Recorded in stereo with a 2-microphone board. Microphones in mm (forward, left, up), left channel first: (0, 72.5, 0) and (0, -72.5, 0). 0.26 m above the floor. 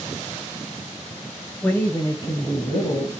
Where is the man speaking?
10° left (ahead or behind), 0.9 m; by 3.2 s 50° left (ahead or behind), 1.4 m.